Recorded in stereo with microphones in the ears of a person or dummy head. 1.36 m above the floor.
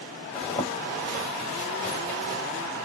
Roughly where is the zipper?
Centre.